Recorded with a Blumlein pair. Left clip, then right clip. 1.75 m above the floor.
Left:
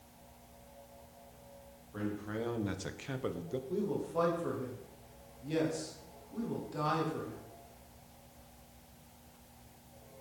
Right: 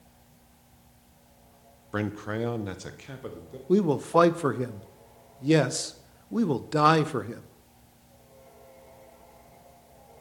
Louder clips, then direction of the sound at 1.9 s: Right 8 dB; 50° right.